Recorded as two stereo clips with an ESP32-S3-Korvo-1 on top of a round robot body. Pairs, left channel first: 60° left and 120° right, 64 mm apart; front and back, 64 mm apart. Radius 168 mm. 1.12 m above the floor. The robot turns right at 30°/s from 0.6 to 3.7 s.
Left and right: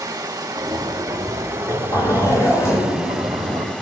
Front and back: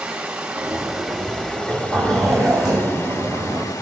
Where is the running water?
105° right, 1.5 m; by 3.8 s 10° right, 1.5 m.